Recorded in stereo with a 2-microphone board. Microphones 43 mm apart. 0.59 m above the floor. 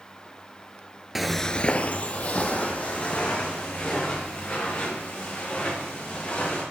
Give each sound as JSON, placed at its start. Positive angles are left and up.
{"t": 1.1, "sound": "footsteps", "side_deg": -5, "distance_m": 0.6}